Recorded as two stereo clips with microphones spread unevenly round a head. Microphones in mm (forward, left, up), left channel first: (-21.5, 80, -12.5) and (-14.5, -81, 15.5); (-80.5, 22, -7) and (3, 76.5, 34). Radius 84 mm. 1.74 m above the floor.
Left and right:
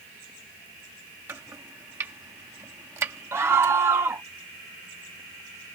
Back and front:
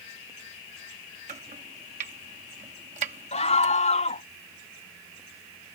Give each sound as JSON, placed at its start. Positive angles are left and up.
{"t": 1.3, "sound": "chopping", "azimuth_deg": -10}
{"t": 3.3, "sound": "a scream", "azimuth_deg": -160}